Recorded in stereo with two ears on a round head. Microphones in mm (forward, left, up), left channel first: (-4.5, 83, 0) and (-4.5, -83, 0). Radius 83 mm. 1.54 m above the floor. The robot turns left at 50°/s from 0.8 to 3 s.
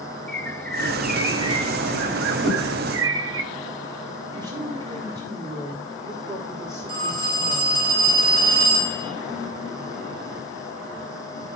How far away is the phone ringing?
About 8 m.